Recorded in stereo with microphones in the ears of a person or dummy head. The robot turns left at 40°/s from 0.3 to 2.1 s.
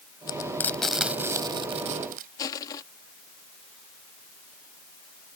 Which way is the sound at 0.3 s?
25° left (ahead or behind).